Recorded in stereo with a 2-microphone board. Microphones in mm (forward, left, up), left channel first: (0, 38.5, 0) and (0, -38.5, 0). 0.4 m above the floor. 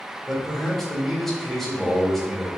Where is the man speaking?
5° left (ahead or behind), 0.9 m.